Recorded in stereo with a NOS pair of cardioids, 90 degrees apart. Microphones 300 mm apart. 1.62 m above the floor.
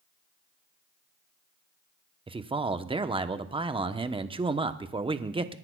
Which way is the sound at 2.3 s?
20° right.